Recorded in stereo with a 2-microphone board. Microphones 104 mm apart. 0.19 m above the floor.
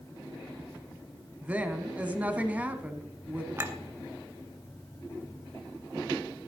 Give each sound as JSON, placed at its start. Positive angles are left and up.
{"t": 1.4, "sound": "a woman speaking", "side_deg": -15, "distance_m": 1.2}
{"t": 3.6, "sound": "a clink", "side_deg": -25, "distance_m": 1.1}